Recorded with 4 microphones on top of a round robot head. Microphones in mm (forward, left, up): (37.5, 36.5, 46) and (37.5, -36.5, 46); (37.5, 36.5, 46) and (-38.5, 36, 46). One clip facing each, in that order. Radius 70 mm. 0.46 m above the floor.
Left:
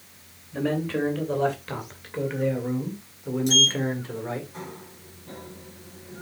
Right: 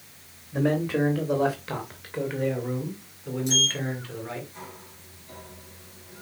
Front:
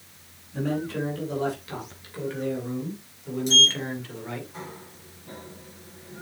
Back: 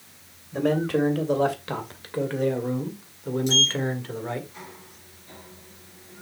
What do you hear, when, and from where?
0.5 s a man speaking: 165° right, 3 m; by 4.5 s 140° left, 2 m
3.5 s a sliding door: 55° left, 2 m